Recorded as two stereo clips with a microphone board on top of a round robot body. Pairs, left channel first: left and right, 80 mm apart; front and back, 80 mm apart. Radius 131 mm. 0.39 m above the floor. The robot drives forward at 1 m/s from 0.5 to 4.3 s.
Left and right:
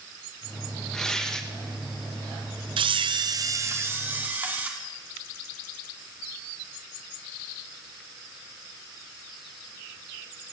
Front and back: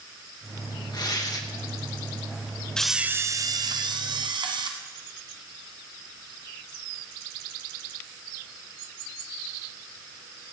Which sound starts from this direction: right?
A camera shutter, at 2.8 s.